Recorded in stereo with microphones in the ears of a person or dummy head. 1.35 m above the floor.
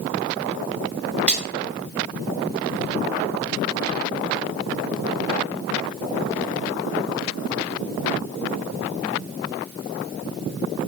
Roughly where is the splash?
Centre.